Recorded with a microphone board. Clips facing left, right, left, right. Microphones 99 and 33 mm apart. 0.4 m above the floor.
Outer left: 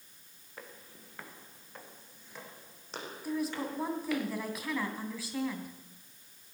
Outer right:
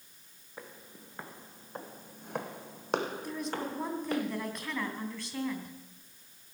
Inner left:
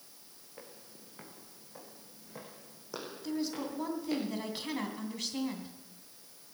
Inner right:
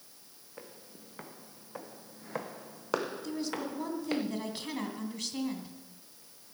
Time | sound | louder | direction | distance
0.6 | footsteps | outer right 2 dB, inner right 3 dB | 15° right (ahead or behind) | 2 m
3.2 | a woman speaking | outer left 2 dB, even | 5° left (ahead or behind) | 2.5 m